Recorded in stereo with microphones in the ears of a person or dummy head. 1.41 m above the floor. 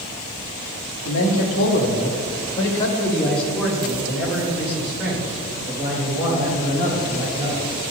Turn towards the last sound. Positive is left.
turn(degrees=-20)  # may be behind; listen again after turning